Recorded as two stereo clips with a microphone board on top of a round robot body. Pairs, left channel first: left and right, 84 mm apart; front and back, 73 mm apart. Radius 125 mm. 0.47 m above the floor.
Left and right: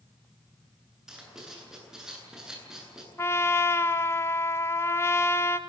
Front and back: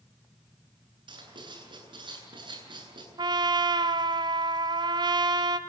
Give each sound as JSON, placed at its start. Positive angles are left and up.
{"t": 1.1, "sound": "writing", "azimuth_deg": -175, "distance_m": 9.0}
{"t": 3.2, "sound": "a trumpet", "azimuth_deg": 150, "distance_m": 1.4}